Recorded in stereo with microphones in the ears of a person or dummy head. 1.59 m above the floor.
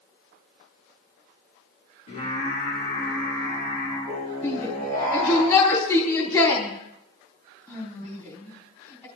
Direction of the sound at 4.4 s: 20° left (ahead or behind).